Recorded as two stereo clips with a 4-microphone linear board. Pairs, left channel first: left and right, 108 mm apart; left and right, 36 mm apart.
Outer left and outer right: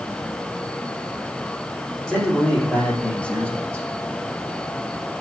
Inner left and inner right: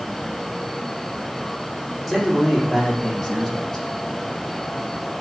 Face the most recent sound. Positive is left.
turn(degrees=15)  # may be behind; listen again after turning